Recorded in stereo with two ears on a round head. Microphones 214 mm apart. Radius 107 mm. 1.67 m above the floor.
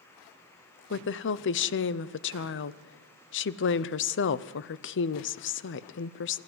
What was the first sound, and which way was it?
A woman speaking, 55° left (ahead or behind).